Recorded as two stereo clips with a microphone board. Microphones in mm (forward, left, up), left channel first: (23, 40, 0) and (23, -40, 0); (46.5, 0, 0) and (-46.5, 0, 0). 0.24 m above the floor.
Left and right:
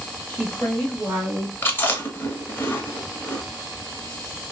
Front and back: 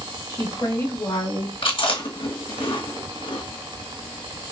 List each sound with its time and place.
0.3 s a woman speaking: 30° left, 1.4 m; by 1.5 s 45° right, 1.3 m
1.6 s chewing: 30° left, 0.9 m